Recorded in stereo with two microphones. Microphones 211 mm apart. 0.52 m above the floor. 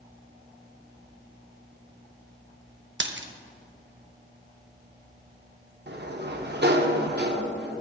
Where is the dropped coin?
60° right (ahead or behind), 0.6 m.